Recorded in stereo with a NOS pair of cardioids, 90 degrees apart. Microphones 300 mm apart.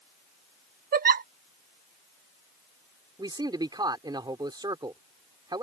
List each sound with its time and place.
0.9 s a giggle: 30° right
3.2 s a man speaking: 15° right